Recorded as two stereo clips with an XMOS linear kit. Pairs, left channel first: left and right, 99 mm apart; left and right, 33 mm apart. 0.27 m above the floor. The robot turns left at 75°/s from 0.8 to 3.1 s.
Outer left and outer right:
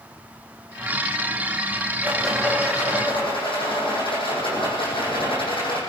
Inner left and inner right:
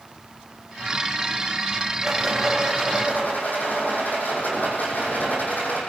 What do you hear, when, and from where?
2.0 s a rattle: 160° right, 6.5 m; by 5.8 s 120° left, 6.5 m